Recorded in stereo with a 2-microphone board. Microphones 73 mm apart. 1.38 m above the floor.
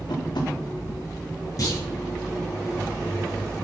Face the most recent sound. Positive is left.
turn(degrees=55)  # may be behind; listen again after turning